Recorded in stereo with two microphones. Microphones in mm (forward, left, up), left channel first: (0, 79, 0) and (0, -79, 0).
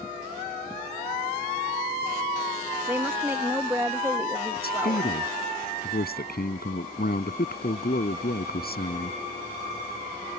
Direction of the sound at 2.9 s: 15° right (ahead or behind).